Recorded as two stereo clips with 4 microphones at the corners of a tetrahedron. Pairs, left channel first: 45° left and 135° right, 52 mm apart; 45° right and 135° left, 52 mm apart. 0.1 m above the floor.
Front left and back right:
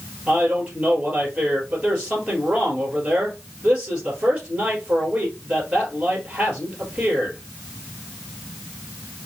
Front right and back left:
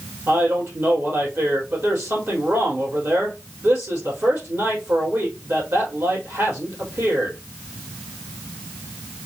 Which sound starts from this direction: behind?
A man speaking, at 0.3 s.